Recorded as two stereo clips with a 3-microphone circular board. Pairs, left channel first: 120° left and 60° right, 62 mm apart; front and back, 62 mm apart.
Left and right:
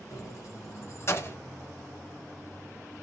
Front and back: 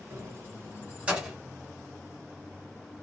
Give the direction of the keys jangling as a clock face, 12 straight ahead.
7 o'clock.